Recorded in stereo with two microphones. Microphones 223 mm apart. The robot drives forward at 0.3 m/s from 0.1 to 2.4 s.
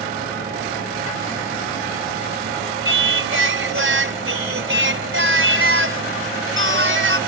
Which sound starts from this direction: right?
Singing, at 2.9 s.